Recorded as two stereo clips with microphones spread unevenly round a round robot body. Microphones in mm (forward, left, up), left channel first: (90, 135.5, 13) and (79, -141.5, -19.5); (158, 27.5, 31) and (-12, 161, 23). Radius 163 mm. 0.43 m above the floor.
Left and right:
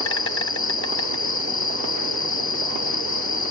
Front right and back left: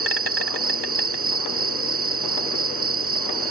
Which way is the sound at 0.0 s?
145° left.